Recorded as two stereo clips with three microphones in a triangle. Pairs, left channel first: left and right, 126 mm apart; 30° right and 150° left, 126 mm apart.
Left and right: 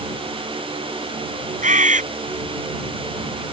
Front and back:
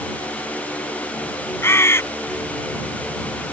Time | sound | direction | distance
1.6 | a bird | 100° right | ?